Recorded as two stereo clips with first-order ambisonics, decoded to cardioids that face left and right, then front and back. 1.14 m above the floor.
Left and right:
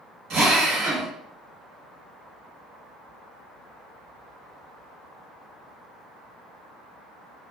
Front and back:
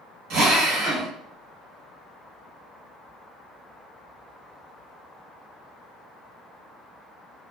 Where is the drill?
135° right, 0.7 m.